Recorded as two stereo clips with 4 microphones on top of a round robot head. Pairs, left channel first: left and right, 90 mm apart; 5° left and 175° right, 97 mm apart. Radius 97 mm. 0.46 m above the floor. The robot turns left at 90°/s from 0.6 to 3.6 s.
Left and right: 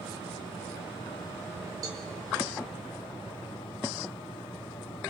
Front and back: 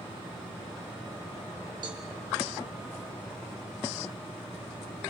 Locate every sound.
1.8 s a cowbell: 135° right, 2.5 m; by 2.0 s 155° right, 2.5 m